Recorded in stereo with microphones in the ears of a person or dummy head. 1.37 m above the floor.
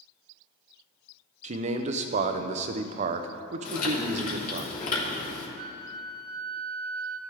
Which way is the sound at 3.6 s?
50° left (ahead or behind).